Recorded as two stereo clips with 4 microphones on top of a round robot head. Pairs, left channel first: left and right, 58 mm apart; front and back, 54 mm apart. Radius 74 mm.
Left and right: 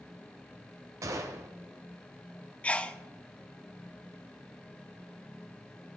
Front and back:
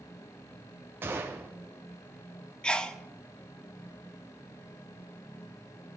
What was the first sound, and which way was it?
A gunshot, 125° right.